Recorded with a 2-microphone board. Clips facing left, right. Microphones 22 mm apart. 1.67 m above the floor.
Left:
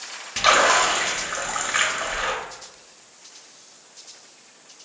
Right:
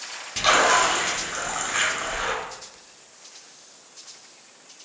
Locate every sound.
0.4 s a splash: 15° left (ahead or behind), 0.6 m